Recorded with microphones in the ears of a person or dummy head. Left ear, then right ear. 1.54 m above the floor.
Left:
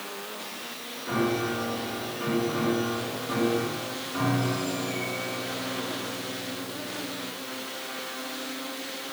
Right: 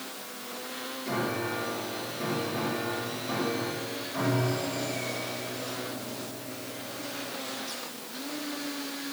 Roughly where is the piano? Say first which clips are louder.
Left 4 dB; centre.